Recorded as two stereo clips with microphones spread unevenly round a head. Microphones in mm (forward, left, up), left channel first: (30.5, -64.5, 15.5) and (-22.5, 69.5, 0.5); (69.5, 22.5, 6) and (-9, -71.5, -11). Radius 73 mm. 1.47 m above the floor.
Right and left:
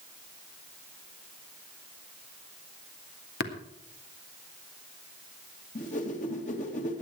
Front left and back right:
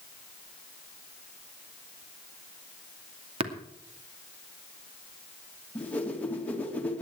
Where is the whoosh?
30° right, 2.5 m.